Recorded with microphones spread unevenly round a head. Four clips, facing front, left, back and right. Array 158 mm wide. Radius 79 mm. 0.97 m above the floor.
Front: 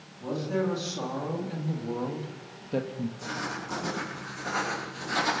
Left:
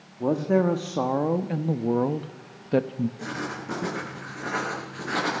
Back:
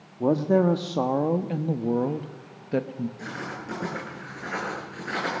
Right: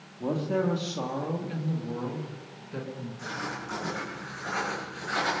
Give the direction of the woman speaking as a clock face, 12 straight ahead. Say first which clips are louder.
Left 6 dB, back 8 dB; 7 o'clock.